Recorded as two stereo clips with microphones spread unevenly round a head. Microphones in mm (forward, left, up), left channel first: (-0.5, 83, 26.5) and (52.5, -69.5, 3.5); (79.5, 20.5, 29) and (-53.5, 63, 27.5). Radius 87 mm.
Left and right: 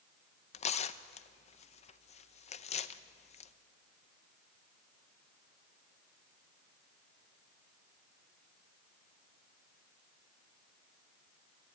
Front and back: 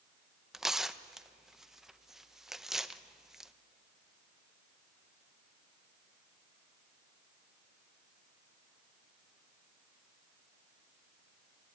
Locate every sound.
0.5 s tearing paper: 75° left, 0.7 m